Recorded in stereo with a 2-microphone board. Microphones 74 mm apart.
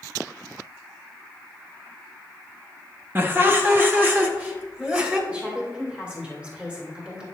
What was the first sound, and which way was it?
Laughter, 30° right (ahead or behind).